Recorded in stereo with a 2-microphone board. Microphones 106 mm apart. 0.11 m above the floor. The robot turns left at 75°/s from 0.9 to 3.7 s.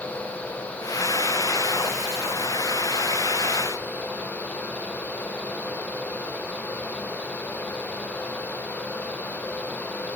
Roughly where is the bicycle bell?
No bicycle bell in this recording.